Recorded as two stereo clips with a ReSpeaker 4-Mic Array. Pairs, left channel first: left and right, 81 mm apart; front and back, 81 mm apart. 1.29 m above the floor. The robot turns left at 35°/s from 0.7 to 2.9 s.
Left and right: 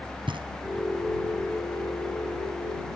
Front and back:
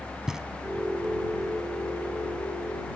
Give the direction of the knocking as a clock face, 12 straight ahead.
3 o'clock.